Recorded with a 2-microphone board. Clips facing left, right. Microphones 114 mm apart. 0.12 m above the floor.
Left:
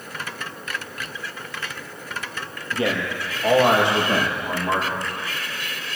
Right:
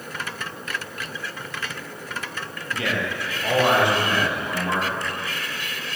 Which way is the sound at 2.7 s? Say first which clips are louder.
Left 3 dB; 30° left (ahead or behind).